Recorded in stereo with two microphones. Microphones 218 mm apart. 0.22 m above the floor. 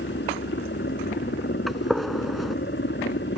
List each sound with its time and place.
0.0 s a helicopter: 55° left (ahead or behind)
1.7 s a gunshot: centre (ahead or behind)